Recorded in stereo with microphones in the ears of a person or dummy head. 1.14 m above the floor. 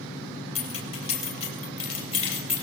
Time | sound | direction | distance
0.6 | keys jangling | 35° left (ahead or behind) | 3.5 m